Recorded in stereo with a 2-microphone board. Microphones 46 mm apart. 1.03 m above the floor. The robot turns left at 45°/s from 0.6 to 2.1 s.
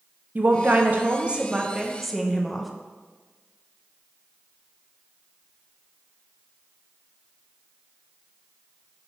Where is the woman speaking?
110° right, 0.7 m; by 2.7 s straight behind, 0.7 m.